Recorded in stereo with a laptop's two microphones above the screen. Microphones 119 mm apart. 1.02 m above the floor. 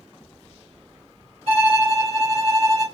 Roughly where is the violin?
Right.